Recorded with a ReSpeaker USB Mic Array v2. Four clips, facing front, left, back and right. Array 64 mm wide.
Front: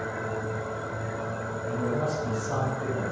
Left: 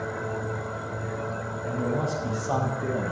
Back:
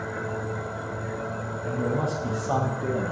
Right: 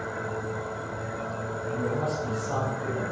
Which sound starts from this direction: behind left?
A man speaking, at 1.6 s.